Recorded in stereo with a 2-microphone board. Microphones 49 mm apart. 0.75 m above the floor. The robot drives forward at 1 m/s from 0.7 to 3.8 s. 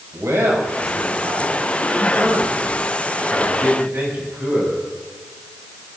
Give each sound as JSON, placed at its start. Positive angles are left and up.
{"t": 0.1, "sound": "a man speaking", "side_deg": -80, "distance_m": 5.5}